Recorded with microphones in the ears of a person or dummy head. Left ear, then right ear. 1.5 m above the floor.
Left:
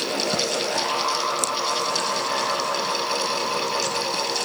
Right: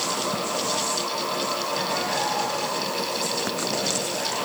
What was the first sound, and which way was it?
Only background noise.